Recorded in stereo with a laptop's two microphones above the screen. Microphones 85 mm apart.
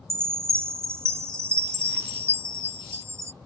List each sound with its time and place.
0.1 s a chime: 35° right (ahead or behind)